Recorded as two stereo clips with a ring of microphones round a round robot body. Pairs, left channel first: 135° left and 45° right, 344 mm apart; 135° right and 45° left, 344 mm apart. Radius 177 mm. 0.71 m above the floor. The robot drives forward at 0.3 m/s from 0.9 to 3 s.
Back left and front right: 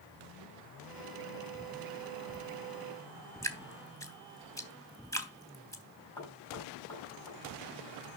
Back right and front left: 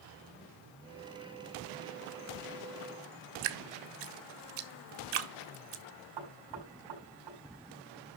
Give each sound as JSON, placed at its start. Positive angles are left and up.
{"t": 3.4, "sound": "dripping", "azimuth_deg": 55, "distance_m": 1.2}
{"t": 6.2, "sound": "knocking", "azimuth_deg": 55, "distance_m": 5.5}